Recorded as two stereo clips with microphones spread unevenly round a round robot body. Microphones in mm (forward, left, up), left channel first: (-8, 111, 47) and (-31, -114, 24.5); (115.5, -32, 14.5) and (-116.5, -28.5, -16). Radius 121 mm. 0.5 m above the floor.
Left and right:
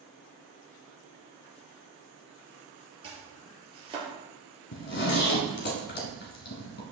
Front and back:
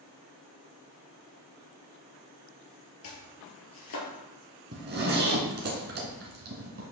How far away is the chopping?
About 3 m.